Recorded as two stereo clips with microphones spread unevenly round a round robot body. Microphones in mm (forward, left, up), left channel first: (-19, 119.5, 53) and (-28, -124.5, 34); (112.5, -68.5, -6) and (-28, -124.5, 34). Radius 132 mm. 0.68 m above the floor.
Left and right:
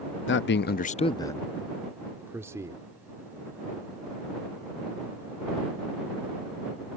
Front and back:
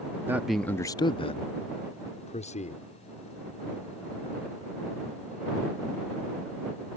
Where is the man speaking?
115° left; by 2.9 s 15° right.